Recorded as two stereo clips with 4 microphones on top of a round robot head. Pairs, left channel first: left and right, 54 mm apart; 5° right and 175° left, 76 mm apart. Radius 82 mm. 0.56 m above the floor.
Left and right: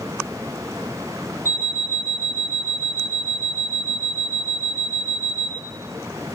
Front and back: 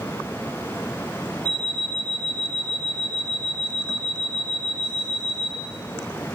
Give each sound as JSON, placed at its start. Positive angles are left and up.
{"t": 1.4, "sound": "an alarm clock", "azimuth_deg": -140, "distance_m": 3.5}